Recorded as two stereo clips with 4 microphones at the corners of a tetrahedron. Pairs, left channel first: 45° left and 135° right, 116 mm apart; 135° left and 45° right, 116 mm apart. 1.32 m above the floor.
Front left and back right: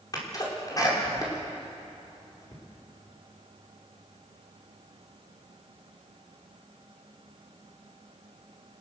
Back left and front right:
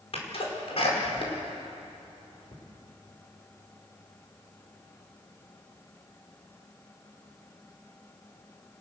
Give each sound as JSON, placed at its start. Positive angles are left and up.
{"t": 0.1, "sound": "a sneeze", "azimuth_deg": 105, "distance_m": 5.0}